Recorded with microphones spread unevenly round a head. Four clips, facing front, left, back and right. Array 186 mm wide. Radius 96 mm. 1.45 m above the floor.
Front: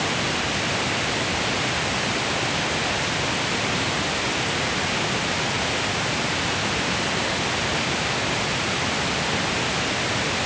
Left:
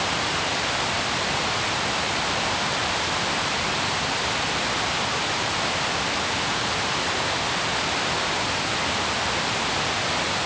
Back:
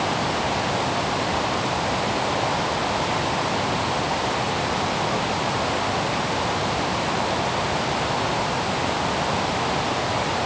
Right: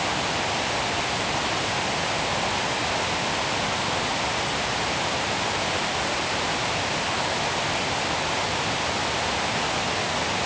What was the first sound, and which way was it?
Only background noise.